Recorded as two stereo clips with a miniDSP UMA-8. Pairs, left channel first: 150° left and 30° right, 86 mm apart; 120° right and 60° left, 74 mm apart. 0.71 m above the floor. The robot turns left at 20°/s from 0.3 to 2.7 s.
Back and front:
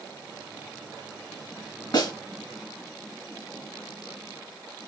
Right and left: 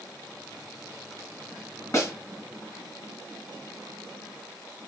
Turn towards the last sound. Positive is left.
turn(degrees=170)